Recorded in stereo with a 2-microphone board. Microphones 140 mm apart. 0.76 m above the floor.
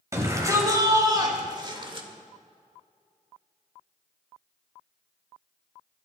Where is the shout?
20° right (ahead or behind), 4.5 m; by 2.1 s 40° right (ahead or behind), 2.5 m.